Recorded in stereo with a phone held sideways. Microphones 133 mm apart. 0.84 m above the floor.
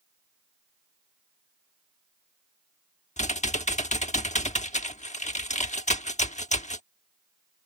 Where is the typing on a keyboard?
60° left (ahead or behind).